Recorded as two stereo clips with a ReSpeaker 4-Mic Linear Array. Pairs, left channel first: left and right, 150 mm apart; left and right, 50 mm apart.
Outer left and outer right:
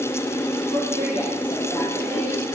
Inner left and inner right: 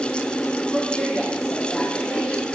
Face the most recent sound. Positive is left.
turn(degrees=35)  # may be behind; listen again after turning